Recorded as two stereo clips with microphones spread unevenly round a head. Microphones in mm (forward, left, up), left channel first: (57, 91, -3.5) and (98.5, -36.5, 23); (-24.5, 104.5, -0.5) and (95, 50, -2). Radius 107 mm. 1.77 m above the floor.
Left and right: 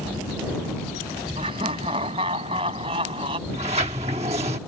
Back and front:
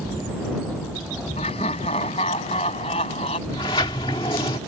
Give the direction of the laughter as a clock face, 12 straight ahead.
5 o'clock.